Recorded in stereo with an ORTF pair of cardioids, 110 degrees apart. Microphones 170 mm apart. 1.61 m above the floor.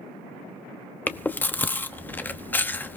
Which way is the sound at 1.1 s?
10° left.